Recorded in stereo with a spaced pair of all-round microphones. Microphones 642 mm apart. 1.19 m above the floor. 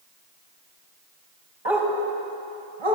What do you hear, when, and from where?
1.6 s a dog barking: 45° right (ahead or behind), 3 m; by 3.0 s 50° right (ahead or behind), 4 m